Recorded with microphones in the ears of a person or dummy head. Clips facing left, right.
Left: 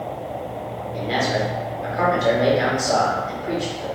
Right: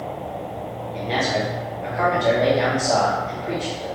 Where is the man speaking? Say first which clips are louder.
Left 1 dB; 10° left (ahead or behind), 0.7 m.